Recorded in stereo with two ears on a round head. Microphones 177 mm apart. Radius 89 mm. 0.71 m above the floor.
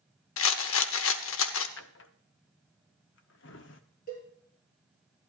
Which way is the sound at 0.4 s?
70° left (ahead or behind).